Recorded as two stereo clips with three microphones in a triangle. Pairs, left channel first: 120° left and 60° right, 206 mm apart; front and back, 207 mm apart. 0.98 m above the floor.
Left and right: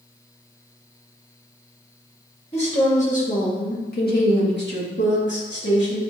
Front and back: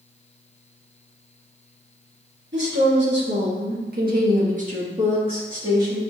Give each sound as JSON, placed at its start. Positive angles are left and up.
{"t": 2.5, "sound": "a woman speaking", "azimuth_deg": 175, "distance_m": 1.9}